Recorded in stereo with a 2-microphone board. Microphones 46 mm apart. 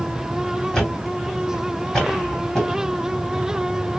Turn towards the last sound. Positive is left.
turn(degrees=10)  # may be behind; listen again after turning